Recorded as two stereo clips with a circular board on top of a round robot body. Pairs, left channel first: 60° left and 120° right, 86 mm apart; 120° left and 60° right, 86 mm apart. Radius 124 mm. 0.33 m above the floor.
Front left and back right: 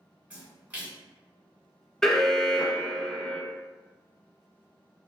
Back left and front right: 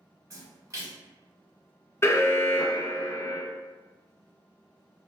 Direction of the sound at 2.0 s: 135° left.